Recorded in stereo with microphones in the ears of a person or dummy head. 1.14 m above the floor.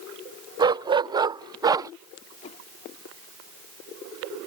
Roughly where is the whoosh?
Left.